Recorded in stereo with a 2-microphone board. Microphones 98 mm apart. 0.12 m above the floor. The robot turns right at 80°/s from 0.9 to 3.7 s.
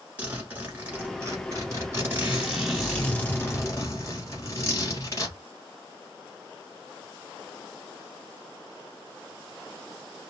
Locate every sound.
0.2 s a zipper: 145° right, 1.8 m; by 5.4 s 80° left, 1.8 m